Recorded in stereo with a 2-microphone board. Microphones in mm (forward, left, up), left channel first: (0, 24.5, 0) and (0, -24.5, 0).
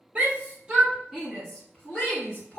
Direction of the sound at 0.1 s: 30° right (ahead or behind).